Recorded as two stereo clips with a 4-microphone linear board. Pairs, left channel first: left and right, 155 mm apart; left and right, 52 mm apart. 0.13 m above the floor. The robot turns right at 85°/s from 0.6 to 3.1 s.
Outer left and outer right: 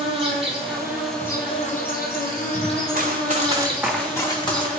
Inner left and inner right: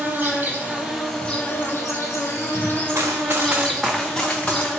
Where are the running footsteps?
60° right (ahead or behind), 0.8 m; by 4.7 s 35° left (ahead or behind), 1.2 m.